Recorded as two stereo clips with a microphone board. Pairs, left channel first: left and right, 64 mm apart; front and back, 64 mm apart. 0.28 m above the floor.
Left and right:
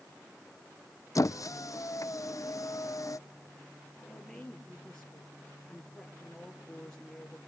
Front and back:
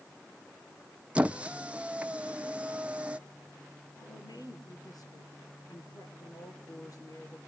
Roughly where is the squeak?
Left.